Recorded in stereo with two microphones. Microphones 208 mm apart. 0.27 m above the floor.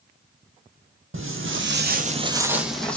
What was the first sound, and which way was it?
Footsteps, 75° right (ahead or behind).